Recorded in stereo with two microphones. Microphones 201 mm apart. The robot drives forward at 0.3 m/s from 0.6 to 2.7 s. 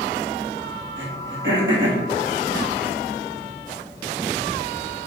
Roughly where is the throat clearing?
Right.